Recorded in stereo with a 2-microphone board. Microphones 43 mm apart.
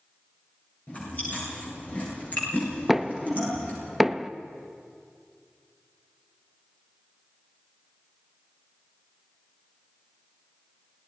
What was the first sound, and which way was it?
Chewing, 35° left (ahead or behind).